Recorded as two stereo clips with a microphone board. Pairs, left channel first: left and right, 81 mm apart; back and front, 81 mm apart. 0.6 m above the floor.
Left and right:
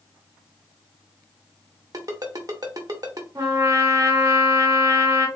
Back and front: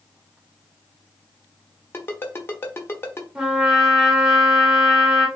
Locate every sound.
1.9 s a ringtone: 125° right, 0.9 m
3.4 s a trumpet: 80° right, 1.2 m